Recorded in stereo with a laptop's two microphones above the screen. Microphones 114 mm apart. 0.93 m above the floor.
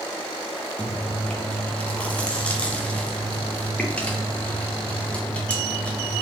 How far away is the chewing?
About 1.1 m.